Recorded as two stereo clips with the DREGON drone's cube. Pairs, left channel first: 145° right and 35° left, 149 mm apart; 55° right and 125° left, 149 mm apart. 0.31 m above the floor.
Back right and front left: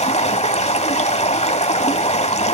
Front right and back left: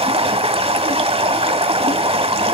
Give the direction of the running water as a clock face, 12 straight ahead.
6 o'clock.